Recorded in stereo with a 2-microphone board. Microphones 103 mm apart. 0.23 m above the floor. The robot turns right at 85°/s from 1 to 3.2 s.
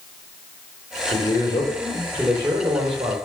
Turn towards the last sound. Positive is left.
turn(degrees=-80)